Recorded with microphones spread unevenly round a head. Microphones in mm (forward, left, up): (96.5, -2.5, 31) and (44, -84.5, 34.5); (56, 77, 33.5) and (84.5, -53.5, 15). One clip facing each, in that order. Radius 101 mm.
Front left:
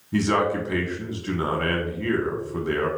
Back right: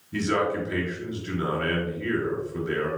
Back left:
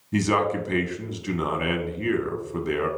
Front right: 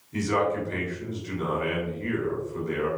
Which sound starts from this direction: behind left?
A man speaking, at 0.1 s.